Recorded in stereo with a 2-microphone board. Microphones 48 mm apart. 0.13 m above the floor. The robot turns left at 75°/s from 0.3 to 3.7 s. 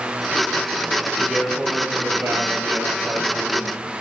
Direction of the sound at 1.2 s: 5° left.